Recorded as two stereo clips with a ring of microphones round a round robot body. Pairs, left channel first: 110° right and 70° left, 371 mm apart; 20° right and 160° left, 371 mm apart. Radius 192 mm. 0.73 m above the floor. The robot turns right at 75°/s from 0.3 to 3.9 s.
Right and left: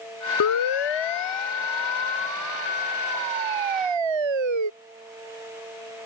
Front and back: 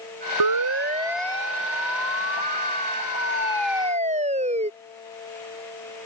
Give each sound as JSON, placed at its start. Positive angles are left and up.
{"t": 0.4, "sound": "a siren", "azimuth_deg": -170}